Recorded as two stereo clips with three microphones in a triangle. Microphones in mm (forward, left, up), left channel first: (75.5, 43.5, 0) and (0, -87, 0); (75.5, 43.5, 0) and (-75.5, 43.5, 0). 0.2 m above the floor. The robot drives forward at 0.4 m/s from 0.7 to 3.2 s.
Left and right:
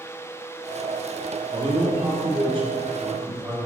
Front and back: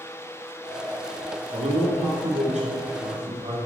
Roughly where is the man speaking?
Behind.